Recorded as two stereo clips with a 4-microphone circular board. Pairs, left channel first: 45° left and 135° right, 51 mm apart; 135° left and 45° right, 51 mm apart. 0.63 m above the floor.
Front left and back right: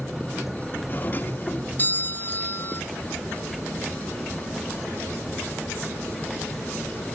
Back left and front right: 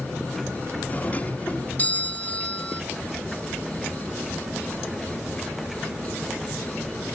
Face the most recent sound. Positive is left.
turn(degrees=85)